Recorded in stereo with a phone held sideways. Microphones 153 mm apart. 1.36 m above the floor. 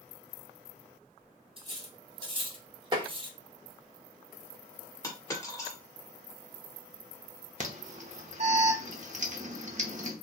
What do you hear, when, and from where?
1.6 s cutlery clinking: 35° right (ahead or behind), 0.6 m
2.9 s tapping: 30° right (ahead or behind), 0.7 m
5.0 s a dropped coin: 20° left (ahead or behind), 1.3 m
7.6 s an alarm: 50° right (ahead or behind), 0.8 m